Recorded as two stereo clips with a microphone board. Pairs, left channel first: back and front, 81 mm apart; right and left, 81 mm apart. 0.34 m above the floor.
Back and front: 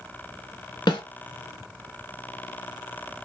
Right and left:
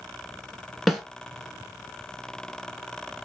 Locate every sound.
0.9 s a snare drum: straight behind, 0.8 m